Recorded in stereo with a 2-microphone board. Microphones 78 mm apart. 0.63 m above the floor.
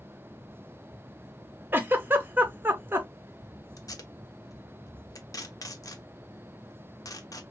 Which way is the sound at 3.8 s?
45° left (ahead or behind).